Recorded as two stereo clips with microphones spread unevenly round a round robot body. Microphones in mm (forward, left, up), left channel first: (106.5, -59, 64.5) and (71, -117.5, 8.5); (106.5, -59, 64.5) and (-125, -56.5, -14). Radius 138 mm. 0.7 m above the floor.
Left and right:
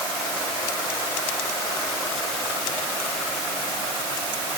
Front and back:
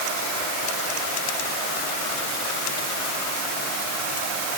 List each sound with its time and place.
Only background noise.